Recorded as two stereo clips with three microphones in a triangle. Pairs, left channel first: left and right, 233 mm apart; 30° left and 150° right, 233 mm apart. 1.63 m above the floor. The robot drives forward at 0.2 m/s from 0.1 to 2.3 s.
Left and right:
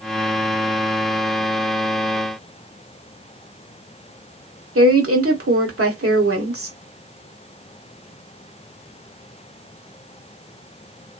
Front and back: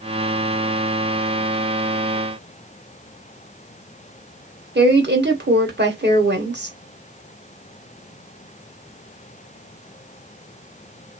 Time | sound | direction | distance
4.8 | a woman speaking | 105° right | 1.0 m